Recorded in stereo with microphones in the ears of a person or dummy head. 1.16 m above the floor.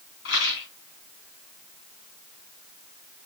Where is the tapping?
No tapping in this recording.